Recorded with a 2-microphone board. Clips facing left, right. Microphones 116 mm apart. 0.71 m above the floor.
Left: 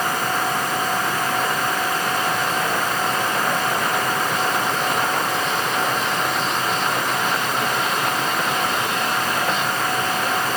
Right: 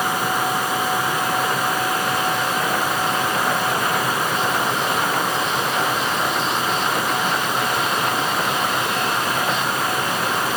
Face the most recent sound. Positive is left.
No sound to turn to.